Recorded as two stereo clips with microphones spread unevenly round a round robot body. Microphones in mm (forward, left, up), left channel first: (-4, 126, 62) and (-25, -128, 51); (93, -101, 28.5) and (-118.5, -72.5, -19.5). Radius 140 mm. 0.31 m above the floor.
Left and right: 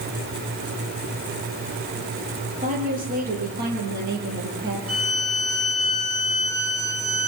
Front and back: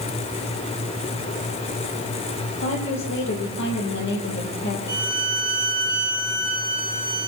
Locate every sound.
2.6 s a woman speaking: 35° right, 8 m; by 4.8 s 45° right, 8 m
4.9 s a violin: 150° right, 6 m